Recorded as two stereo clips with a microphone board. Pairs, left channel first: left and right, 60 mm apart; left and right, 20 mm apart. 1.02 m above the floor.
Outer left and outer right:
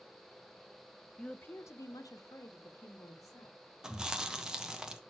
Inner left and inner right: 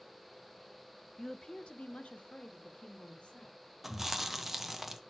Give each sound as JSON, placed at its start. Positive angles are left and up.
{"t": 1.2, "sound": "a woman speaking", "side_deg": 10, "distance_m": 0.6}
{"t": 3.8, "sound": "chewing", "side_deg": -10, "distance_m": 0.9}